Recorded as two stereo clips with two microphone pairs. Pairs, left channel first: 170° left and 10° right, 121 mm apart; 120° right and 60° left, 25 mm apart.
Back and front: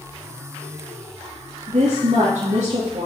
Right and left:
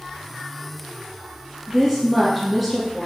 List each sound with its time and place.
1.7 s a woman speaking: 25° right, 2.5 m